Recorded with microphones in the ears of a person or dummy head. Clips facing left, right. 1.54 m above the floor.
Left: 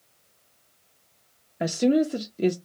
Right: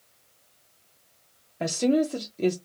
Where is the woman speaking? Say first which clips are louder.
Left 2 dB; 10° left (ahead or behind), 0.5 m.